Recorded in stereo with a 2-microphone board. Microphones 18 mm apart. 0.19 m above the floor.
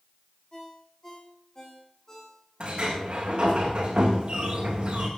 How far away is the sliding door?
About 4.5 m.